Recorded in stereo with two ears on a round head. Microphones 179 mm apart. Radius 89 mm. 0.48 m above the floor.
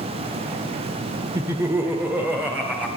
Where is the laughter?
15° right (ahead or behind), 1.0 m; by 2.9 s 5° right (ahead or behind), 2.5 m.